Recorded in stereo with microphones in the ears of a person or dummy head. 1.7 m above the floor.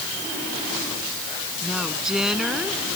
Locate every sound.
1.6 s a woman speaking: centre (ahead or behind)